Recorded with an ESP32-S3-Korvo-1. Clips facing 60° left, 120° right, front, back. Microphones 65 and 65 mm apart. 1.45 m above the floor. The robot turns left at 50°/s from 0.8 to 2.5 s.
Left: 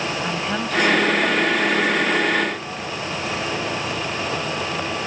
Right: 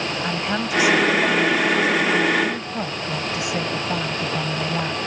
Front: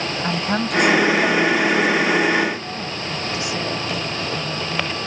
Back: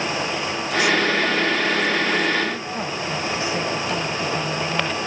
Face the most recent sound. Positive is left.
turn(degrees=-120)